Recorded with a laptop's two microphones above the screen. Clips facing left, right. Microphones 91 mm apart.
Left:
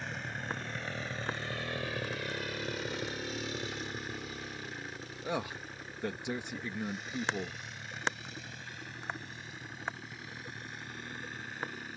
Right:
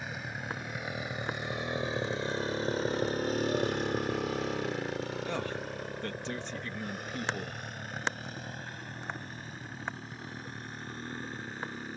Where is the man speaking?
10° left (ahead or behind).